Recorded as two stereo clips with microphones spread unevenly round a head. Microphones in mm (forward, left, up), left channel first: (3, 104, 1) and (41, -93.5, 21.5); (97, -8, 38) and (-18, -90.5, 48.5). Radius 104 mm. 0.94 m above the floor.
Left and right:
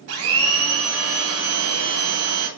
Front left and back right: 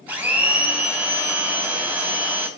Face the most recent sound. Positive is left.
turn(degrees=-65)